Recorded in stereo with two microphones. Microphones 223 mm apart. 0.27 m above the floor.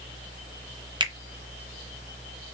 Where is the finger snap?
20° right (ahead or behind), 0.8 m.